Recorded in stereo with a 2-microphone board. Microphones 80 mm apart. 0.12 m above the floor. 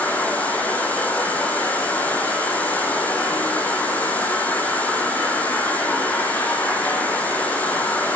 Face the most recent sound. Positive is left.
turn(degrees=20)  # may be behind; listen again after turning